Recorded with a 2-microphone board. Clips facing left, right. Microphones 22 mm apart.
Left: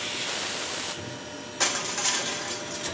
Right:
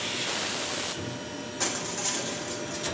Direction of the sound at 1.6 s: 30° left (ahead or behind).